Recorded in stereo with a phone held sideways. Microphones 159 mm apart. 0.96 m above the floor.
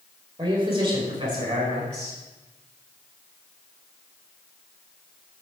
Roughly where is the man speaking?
Right.